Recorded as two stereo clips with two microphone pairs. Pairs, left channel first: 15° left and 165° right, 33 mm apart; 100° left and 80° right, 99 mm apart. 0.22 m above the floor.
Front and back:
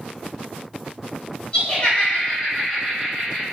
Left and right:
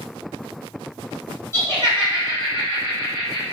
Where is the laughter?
55° left, 1.3 m; by 3.4 s 110° left, 1.6 m.